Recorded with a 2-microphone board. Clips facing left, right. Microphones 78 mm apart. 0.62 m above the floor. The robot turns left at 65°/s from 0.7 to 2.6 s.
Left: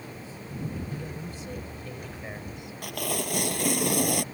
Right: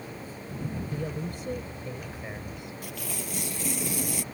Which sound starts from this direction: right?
A woman speaking, at 0.9 s.